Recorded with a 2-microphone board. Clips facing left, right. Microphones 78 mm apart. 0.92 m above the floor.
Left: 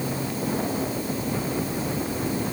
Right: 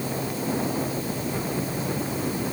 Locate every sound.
Only background noise.